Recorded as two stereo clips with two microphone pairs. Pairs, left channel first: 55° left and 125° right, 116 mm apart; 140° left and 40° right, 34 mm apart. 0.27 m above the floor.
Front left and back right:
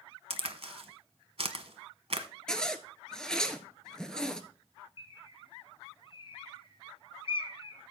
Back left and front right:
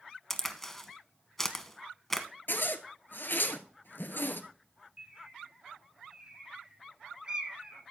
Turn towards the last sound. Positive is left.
turn(degrees=15)